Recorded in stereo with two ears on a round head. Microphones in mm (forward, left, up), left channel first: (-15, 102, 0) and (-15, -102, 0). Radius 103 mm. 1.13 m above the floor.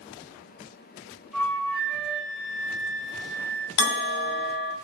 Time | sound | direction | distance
1.3 | a flute | centre (ahead or behind) | 0.6 m
3.8 | a bell | 50° left (ahead or behind) | 0.8 m